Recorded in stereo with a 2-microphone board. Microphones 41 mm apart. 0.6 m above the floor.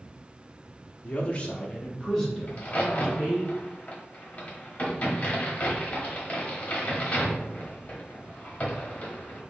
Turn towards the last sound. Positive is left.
turn(degrees=35)  # may be behind; listen again after turning